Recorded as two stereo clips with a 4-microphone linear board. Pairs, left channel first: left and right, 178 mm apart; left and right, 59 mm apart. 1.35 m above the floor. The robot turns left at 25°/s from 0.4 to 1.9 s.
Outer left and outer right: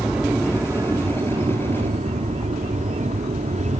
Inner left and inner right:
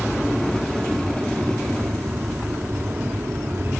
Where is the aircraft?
5° right; by 3.8 s 45° right.